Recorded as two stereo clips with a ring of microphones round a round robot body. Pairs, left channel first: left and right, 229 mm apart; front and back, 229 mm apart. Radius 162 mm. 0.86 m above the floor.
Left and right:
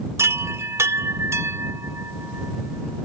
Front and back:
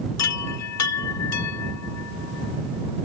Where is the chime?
10° right.